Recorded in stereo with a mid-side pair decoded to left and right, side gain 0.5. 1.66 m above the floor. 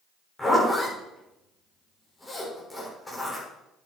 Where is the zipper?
15° left, 7 m.